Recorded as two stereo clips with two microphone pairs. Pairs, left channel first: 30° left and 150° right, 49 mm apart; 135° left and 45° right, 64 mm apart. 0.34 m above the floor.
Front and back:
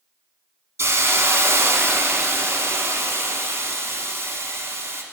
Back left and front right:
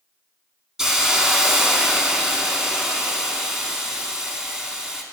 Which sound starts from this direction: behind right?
A hiss, at 0.8 s.